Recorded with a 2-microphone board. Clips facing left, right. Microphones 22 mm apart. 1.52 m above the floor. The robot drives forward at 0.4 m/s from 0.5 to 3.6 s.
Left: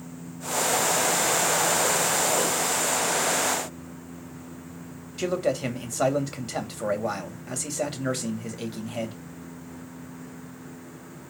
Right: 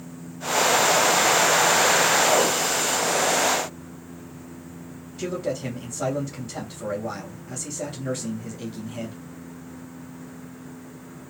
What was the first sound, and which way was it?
A man speaking, 80° left.